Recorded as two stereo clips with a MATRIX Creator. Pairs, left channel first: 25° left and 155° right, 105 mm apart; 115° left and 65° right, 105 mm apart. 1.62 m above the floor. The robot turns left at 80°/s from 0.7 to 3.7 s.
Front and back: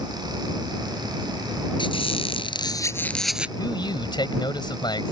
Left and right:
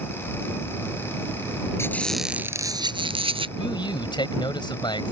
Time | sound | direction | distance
1.8 | a squeak | 55° left | ?
3.6 | a man speaking | 80° left | ?